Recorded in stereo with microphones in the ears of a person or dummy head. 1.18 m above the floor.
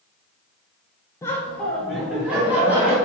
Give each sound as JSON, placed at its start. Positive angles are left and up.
{"t": 1.2, "sound": "laughter", "side_deg": 15, "distance_m": 0.6}